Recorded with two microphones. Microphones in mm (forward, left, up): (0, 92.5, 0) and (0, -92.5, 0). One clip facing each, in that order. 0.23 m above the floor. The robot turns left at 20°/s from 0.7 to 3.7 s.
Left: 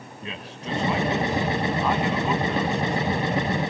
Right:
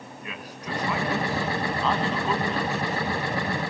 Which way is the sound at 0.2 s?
30° left (ahead or behind).